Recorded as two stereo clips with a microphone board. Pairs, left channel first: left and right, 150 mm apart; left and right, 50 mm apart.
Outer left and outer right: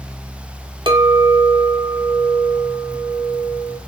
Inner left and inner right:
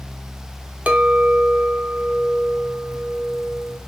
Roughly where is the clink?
Right.